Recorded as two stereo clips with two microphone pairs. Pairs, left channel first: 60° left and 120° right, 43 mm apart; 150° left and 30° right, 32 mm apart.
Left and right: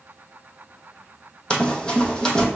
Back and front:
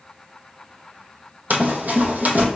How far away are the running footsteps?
About 0.7 m.